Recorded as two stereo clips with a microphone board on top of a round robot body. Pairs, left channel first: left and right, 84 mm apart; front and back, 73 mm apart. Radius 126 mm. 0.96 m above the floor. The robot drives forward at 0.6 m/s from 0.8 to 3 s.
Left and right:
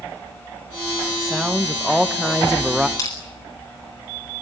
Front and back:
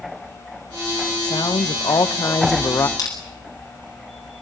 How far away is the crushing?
About 9.5 m.